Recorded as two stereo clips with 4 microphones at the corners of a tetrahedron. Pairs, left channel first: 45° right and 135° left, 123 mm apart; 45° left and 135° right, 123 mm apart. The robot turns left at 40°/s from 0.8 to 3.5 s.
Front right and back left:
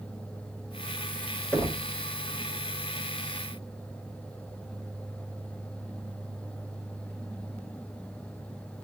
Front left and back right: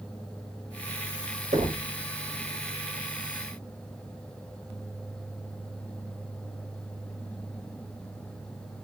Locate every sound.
1.5 s knocking: 125° right, 1.2 m; by 1.9 s 140° right, 1.2 m